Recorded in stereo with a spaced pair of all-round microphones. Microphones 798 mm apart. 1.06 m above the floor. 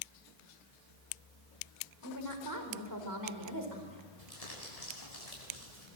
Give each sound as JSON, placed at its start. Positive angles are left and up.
{"t": 2.0, "sound": "a woman speaking", "side_deg": -25, "distance_m": 4.5}
{"t": 4.2, "sound": "crumpling", "side_deg": 50, "distance_m": 8.0}